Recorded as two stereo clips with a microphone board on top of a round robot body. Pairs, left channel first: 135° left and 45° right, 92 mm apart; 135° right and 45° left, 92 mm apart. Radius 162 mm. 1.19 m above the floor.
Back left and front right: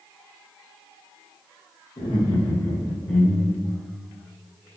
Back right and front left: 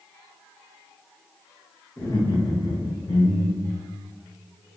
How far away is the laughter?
About 1.4 m.